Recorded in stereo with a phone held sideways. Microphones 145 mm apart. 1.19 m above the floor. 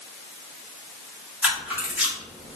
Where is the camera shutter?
5° right (ahead or behind), 1.4 m.